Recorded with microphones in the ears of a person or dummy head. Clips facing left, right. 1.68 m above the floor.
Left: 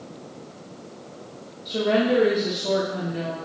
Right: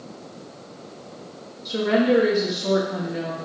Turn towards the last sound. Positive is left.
turn(degrees=-80)